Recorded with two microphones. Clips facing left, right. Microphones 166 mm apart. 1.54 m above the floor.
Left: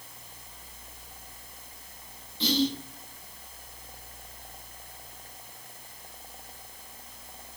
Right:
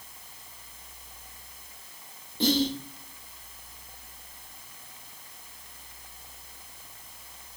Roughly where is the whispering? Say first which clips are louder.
Right 2 dB; right.